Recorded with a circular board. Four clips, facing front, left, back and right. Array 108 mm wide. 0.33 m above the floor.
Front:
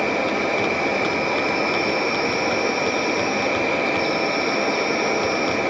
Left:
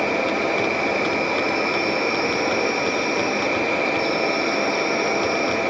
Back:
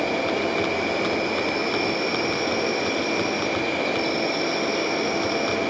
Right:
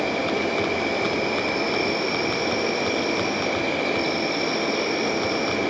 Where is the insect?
50° left, 2.5 m.